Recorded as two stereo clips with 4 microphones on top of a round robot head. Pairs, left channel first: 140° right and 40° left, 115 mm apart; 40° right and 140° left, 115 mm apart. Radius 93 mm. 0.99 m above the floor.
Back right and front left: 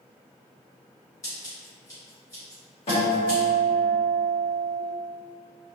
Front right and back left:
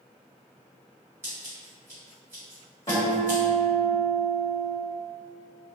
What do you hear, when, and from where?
1.2 s scissors: 170° right, 0.8 m
2.9 s a guitar: 105° right, 1.2 m